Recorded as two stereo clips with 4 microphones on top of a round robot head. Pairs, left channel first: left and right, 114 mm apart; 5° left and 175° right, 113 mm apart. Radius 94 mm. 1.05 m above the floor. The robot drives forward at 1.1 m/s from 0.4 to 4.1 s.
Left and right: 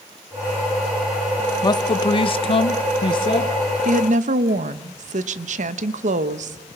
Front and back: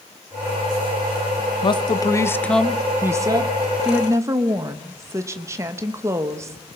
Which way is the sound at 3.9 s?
85° right.